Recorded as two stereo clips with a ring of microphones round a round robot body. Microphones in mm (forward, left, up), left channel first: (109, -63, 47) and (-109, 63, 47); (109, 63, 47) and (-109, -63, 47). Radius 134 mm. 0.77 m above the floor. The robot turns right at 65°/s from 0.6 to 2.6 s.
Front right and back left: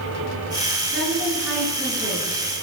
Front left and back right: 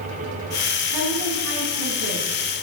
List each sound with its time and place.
0.9 s a woman speaking: 165° right, 10 m; by 2.4 s 65° right, 10 m